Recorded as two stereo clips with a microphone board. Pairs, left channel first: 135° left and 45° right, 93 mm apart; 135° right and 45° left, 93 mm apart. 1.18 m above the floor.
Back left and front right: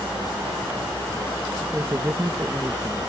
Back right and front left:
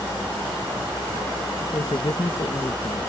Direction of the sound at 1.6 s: 105° right.